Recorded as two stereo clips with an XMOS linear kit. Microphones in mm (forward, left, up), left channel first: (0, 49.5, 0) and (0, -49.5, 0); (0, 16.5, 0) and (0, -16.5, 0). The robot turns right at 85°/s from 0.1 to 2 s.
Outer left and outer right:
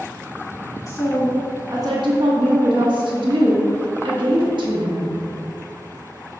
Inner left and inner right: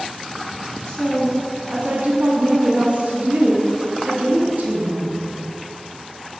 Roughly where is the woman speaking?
Behind left.